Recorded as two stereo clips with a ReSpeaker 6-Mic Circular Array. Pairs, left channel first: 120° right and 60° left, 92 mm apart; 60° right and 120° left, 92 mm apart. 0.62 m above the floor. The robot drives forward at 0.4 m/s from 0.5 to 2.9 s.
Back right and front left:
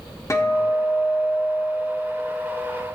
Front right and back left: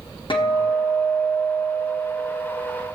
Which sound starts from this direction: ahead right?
A guitar, at 0.3 s.